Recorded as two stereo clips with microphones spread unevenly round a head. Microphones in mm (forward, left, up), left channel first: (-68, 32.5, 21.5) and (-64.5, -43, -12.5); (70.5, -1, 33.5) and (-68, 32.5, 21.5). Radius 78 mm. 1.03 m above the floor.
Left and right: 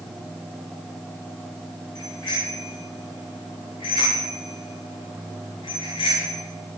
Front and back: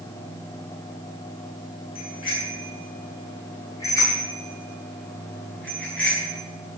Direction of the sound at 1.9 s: 40° left.